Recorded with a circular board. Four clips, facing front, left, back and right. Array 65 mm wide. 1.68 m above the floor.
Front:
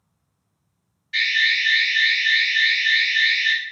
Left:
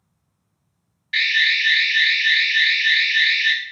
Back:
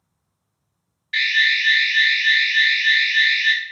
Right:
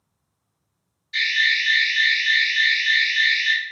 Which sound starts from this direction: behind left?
An alarm, at 1.1 s.